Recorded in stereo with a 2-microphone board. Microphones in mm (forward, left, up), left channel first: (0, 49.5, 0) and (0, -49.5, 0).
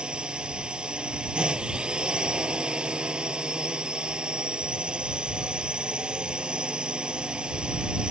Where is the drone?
10° right (ahead or behind).